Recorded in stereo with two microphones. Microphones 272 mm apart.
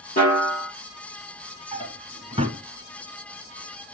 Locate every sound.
0.2 s a snare drum: 30° left (ahead or behind), 6 m
1.7 s a drawer: 25° right (ahead or behind), 1.1 m